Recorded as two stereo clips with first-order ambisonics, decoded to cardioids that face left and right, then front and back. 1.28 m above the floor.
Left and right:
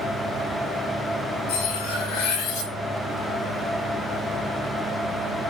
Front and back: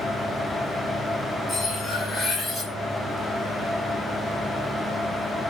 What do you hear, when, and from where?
1.5 s cutlery clinking: 90° left, 5.5 m